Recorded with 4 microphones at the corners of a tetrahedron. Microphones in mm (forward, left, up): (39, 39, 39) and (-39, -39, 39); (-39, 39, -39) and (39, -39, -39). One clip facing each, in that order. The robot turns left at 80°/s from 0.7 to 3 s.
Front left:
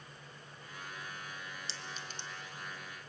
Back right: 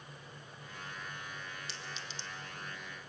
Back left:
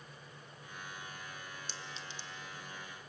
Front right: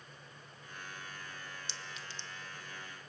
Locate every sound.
1.7 s a clink: 100° left, 1.0 m; by 2.3 s 50° left, 1.0 m